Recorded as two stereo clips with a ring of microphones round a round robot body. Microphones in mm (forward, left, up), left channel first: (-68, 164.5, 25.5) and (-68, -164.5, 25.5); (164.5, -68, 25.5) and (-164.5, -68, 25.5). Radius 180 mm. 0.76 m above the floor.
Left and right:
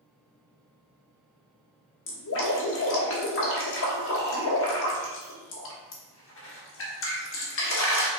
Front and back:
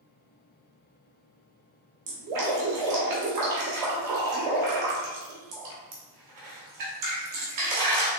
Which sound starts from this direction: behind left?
Dripping, at 2.1 s.